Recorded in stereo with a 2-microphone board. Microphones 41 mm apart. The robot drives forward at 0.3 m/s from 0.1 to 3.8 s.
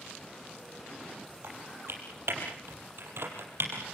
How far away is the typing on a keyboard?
About 5.5 m.